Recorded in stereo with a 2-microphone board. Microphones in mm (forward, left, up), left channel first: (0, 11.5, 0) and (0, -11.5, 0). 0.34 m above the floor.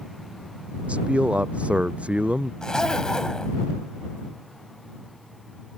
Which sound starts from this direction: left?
A zipper, at 2.6 s.